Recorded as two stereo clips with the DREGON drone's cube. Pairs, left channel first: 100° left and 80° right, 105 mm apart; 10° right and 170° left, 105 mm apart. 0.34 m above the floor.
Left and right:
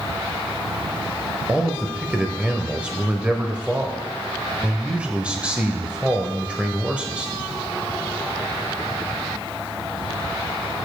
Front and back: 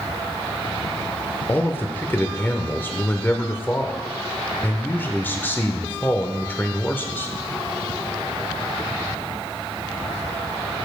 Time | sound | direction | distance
1.5 | a man speaking | 25° right | 0.8 m